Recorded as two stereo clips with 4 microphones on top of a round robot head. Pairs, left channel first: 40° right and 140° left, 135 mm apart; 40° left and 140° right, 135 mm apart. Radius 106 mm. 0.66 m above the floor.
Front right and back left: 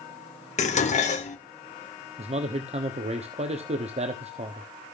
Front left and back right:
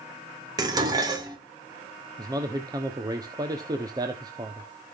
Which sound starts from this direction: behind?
A man speaking, at 2.2 s.